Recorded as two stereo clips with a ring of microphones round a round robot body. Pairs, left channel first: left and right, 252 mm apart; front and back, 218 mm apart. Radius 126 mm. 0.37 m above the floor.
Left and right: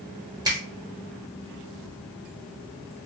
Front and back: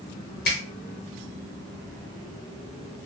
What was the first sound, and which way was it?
A finger snap, 20° right.